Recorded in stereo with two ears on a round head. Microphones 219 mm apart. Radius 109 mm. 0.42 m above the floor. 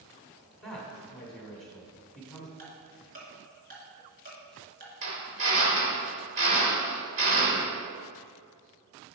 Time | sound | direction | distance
0.6 | a man speaking | centre (ahead or behind) | 1.2 m
2.6 | ticking | 40° right (ahead or behind) | 2.0 m
5.0 | a drill | 50° right (ahead or behind) | 1.7 m